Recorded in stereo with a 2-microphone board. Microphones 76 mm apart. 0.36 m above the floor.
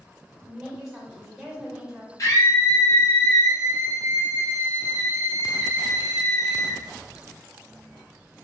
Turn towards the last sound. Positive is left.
turn(degrees=45)  # may be behind; listen again after turning